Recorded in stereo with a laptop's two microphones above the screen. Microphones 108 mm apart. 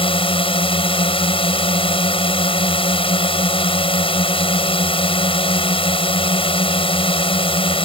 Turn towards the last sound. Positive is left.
turn(degrees=55)  # may be behind; listen again after turning